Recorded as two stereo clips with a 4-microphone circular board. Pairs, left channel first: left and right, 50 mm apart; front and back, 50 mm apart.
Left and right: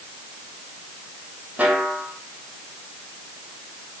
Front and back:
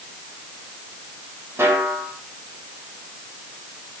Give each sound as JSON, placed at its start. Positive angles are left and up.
{"t": 1.6, "sound": "a snare drum", "azimuth_deg": -150, "distance_m": 6.5}